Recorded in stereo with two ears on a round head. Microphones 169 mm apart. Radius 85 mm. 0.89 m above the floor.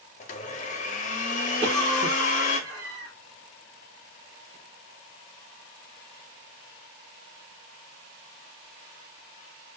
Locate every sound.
0.2 s a blender: 40° left (ahead or behind), 0.7 m
1.6 s a cough: 60° right (ahead or behind), 1.1 m